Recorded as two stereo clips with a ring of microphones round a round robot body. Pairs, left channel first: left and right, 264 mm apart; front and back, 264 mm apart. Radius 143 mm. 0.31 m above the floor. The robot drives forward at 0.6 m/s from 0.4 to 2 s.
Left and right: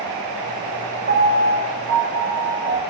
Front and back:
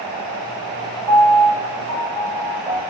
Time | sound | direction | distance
1.1 | a piano | 85° right | 0.9 m